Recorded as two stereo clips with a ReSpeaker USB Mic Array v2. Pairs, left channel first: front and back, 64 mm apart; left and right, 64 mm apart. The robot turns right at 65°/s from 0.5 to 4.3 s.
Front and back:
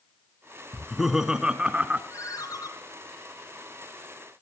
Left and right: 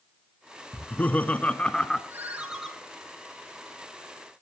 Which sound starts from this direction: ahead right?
A ringtone, at 2.1 s.